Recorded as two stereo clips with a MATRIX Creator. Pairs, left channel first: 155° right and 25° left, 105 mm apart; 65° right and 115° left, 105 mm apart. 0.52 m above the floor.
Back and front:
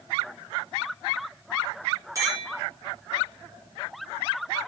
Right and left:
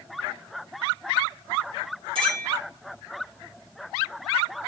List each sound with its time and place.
2.1 s a clink: 80° left, 4.5 m